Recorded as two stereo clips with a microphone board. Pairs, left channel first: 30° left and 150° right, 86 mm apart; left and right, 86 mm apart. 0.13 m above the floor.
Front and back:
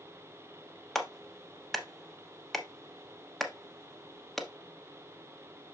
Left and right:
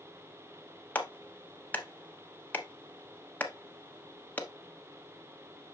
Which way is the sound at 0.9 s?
115° left.